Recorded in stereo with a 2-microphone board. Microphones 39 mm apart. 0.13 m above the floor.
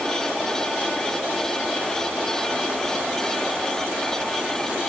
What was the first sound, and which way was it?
Only background noise.